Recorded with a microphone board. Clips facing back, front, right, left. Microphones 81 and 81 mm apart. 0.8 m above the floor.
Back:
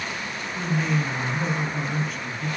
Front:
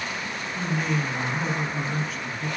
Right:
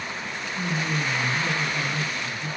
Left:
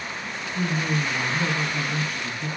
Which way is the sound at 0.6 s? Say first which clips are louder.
Back 2 dB, left 2 dB; 90° left.